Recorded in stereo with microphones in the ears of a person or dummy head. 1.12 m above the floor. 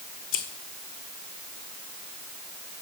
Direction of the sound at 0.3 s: 40° left (ahead or behind).